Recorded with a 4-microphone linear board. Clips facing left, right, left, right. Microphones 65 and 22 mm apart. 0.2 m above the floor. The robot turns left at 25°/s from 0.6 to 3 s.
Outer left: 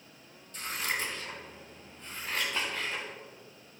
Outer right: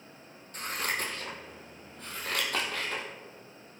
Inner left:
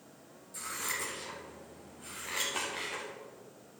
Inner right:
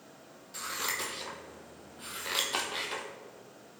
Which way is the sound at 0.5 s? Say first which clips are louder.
Outer right 1 dB, inner right 3 dB; 45° right (ahead or behind).